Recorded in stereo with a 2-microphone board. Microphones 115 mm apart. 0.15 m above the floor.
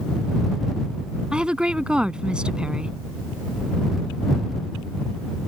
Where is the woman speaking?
10° right (ahead or behind).